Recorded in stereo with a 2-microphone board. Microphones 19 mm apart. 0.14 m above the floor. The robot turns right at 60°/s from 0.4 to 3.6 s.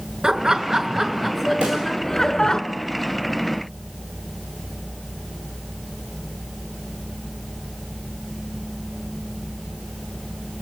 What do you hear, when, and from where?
0.2 s laughter: 70° right, 1.4 m; by 2.6 s 60° left, 1.4 m
1.6 s a pop: 75° right (ahead or behind), 4 m; by 1.8 s 85° right, 4 m